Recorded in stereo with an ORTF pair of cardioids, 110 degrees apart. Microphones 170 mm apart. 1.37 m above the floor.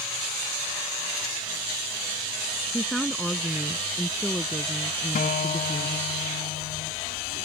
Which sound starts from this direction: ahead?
A woman speaking, at 2.7 s.